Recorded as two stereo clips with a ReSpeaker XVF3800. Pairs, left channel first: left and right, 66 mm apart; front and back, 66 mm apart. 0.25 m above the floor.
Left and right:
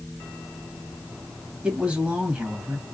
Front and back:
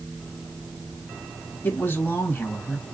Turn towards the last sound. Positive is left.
turn(degrees=-30)